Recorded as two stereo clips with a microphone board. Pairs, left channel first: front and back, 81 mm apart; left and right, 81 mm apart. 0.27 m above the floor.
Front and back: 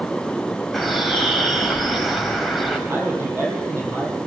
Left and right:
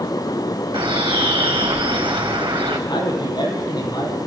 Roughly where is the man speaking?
Behind left.